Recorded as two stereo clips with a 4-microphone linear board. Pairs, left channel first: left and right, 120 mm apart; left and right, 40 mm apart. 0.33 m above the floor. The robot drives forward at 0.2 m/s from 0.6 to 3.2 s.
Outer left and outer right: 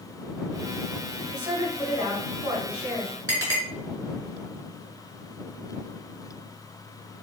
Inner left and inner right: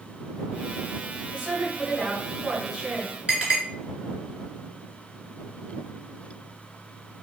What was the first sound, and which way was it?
A woman speaking, 30° right (ahead or behind).